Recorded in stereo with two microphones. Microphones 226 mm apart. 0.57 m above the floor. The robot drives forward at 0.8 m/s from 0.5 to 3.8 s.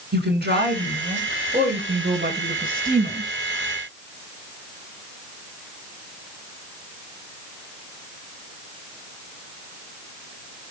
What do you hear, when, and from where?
0.1 s a woman speaking: 45° right (ahead or behind), 6.5 m; by 3.3 s 35° right (ahead or behind), 8.5 m